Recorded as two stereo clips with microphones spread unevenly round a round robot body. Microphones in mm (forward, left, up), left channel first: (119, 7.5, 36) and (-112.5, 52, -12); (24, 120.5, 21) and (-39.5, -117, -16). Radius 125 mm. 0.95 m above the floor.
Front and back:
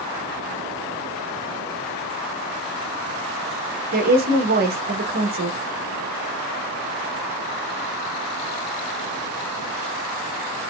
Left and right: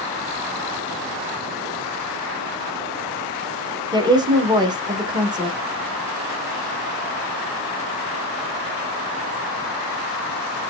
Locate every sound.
3.9 s a woman speaking: 170° right, 1.3 m